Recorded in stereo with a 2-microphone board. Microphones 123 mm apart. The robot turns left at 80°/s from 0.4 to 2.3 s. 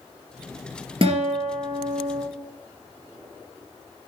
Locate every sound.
1.0 s a guitar: 55° right, 2.5 m; by 2.2 s 150° right, 2.5 m